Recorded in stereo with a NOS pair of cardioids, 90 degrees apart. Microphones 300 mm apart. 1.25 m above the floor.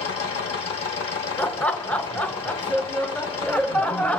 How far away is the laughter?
About 0.7 m.